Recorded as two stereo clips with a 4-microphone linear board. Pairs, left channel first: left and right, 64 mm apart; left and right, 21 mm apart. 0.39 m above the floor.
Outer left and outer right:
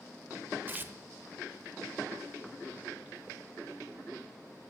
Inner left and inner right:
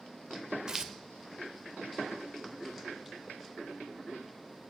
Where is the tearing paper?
30° right (ahead or behind), 0.7 m.